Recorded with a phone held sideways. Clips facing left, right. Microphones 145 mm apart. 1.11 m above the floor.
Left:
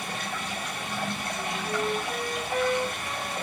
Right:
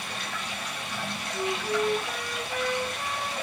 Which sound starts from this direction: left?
Running water, at 0.0 s.